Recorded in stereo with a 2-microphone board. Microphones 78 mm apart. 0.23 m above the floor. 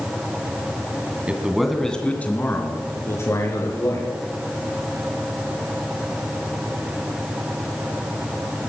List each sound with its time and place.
1.3 s a man speaking: 15° right (ahead or behind), 1.7 m; by 4.1 s 45° left (ahead or behind), 4.5 m